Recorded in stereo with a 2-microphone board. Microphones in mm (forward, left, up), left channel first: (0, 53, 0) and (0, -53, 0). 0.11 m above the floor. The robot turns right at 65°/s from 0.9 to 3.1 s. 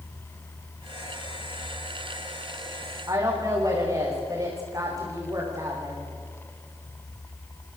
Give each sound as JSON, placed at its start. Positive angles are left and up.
{"t": 3.1, "sound": "a woman speaking", "side_deg": -35, "distance_m": 8.5}